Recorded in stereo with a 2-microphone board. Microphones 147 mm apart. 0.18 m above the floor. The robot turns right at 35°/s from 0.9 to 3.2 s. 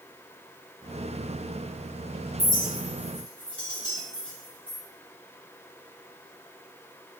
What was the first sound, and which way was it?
A clink, 15° right (ahead or behind).